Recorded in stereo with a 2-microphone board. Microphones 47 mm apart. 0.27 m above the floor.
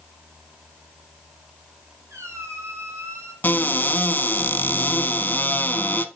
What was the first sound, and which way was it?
A squeak, 85° right.